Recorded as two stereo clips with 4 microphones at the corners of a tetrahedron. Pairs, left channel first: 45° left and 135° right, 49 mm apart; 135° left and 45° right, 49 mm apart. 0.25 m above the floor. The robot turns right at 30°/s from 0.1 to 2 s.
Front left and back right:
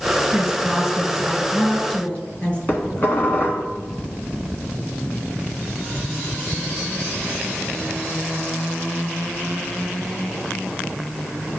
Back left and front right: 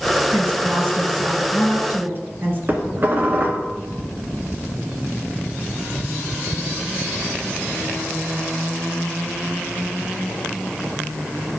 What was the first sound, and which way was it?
A woman speaking, 60° right.